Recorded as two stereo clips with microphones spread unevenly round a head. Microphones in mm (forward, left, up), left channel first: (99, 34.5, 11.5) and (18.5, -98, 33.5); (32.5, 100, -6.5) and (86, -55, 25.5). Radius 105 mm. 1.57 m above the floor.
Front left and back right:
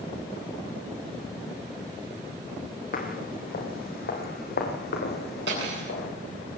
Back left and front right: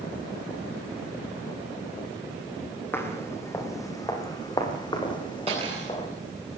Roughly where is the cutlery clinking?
Behind right.